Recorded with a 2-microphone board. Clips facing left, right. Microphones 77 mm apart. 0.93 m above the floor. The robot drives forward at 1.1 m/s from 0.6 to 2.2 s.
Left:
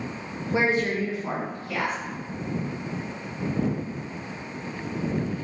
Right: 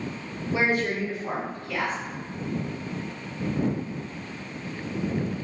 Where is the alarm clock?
No alarm clock in this recording.